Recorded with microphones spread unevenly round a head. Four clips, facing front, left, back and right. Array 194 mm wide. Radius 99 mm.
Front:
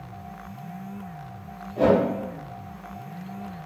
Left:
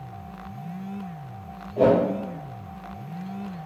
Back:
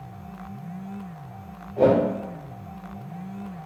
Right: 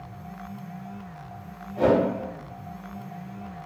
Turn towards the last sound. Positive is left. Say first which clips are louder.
# left 2 dB, back 1 dB
turn(degrees=65)